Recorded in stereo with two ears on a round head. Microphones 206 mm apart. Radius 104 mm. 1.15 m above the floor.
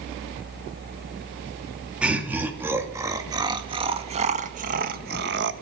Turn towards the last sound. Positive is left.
turn(degrees=-50)  # may be behind; listen again after turning